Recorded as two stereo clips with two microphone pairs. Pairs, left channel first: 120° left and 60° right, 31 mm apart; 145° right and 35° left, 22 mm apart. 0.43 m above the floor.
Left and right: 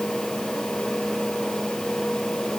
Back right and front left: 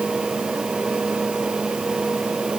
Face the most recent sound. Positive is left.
No sound to turn to.